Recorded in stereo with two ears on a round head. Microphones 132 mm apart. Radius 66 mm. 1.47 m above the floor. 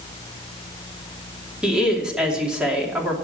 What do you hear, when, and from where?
1.6 s a woman speaking: 5° right (ahead or behind), 3 m